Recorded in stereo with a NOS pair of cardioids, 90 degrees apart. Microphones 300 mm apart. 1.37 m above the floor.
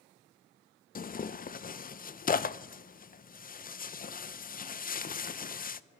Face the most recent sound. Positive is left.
turn(degrees=30)